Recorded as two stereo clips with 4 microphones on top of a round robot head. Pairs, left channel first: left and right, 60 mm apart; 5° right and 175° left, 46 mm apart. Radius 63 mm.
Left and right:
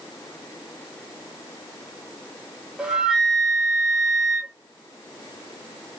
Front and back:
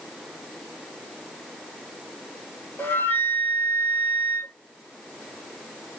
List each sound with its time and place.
2.8 s a flute: 20° right, 1.0 m